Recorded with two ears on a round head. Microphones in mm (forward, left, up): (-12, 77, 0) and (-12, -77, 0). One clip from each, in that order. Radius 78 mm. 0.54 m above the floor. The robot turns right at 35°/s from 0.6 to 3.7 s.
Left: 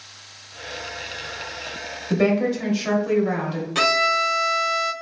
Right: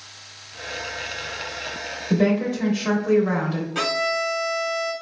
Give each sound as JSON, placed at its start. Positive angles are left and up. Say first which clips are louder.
{"t": 2.1, "sound": "a woman speaking", "louder": "left 2 dB", "azimuth_deg": 130, "distance_m": 0.8}
{"t": 3.8, "sound": "a violin", "louder": "left 5 dB", "side_deg": 50, "distance_m": 0.6}